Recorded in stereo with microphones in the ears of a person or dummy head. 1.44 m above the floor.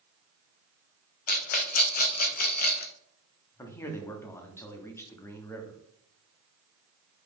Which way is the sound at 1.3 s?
45° left (ahead or behind).